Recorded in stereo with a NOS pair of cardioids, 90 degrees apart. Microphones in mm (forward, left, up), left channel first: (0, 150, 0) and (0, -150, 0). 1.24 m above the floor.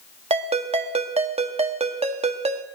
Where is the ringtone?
25° right, 1.3 m.